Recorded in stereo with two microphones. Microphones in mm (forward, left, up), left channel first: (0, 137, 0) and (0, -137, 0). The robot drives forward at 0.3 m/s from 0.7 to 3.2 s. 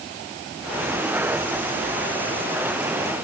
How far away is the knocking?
No knocking in this recording.